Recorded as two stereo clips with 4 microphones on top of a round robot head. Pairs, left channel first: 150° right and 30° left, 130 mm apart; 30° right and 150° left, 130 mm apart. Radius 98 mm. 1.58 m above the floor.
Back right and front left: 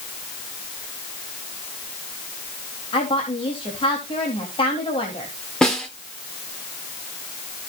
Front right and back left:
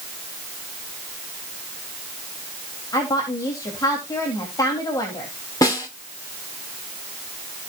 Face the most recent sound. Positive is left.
turn(degrees=-70)